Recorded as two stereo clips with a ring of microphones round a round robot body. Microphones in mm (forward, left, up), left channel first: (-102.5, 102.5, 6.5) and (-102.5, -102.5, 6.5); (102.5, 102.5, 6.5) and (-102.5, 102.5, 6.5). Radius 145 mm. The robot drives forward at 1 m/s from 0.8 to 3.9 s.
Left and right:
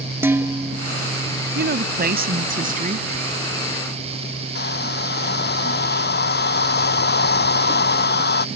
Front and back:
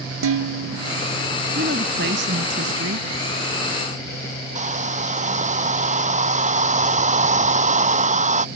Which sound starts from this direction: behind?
Dishes clattering, at 0.2 s.